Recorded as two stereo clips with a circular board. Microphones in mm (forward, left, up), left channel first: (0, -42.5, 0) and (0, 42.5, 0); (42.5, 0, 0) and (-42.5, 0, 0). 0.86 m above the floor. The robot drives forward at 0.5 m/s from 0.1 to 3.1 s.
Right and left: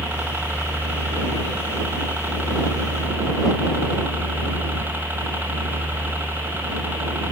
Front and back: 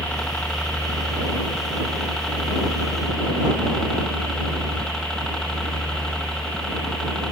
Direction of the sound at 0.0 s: 60° left.